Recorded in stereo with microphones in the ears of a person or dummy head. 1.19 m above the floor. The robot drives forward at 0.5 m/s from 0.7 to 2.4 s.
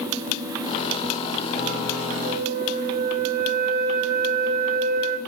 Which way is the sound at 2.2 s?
50° right (ahead or behind).